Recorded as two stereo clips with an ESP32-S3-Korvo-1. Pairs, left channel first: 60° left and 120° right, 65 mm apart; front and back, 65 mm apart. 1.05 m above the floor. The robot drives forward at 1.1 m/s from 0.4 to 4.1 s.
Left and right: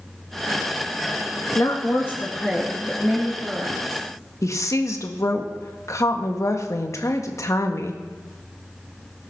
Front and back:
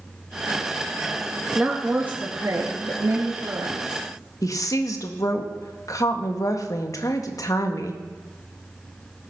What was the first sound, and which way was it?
A woman speaking, 90° left.